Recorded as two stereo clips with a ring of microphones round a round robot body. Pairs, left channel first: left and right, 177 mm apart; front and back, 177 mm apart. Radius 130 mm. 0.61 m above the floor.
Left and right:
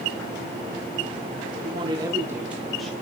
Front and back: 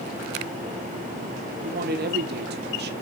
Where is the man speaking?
150° right, 1.2 m; by 2.9 s 175° left, 1.4 m.